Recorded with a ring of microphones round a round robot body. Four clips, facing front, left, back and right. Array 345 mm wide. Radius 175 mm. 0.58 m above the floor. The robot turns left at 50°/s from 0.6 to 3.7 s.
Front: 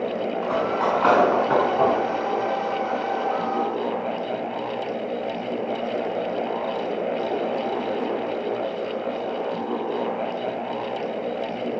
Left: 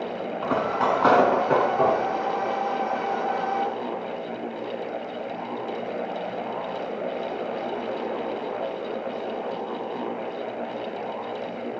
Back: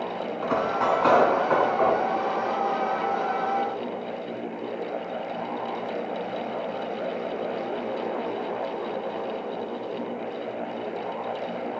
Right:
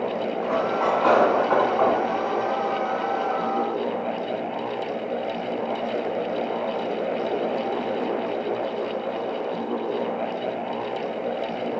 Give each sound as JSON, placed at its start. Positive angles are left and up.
{"t": 0.4, "sound": "cutlery clinking", "azimuth_deg": 95, "distance_m": 4.0}